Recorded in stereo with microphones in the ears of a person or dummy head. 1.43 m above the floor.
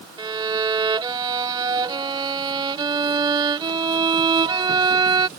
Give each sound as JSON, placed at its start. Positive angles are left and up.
{"t": 0.2, "sound": "a violin", "side_deg": -15}